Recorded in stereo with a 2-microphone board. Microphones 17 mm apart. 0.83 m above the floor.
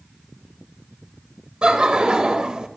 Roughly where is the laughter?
Right.